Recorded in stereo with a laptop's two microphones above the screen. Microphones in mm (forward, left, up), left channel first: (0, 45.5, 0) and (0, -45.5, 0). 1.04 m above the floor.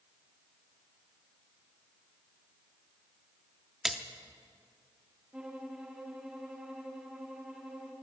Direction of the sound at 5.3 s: 10° right (ahead or behind).